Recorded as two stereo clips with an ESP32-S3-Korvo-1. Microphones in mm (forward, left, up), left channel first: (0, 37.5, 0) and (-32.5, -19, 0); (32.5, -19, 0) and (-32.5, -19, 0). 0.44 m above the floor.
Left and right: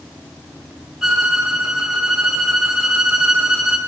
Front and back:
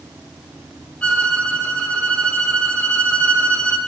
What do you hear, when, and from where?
1.0 s a violin: 45° right, 1.1 m